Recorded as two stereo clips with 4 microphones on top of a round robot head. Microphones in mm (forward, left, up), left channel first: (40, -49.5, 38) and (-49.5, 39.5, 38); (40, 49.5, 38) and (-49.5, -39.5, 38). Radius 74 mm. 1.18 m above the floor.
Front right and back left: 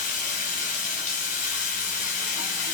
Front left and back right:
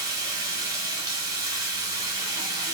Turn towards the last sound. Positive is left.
turn(degrees=-70)